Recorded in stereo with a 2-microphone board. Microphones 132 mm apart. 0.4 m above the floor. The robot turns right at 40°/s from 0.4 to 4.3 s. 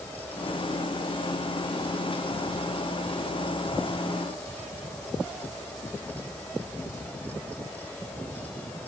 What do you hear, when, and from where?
Only background noise.